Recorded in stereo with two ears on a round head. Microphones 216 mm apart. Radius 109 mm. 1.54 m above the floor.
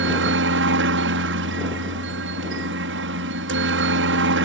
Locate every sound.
0.0 s a helicopter: 55° right (ahead or behind)